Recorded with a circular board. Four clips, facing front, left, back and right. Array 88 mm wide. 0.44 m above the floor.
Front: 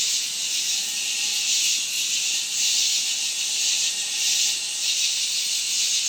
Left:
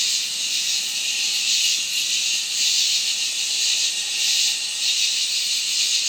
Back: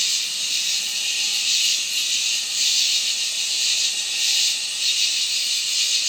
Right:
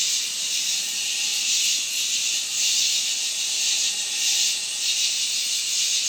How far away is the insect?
About 1.0 m.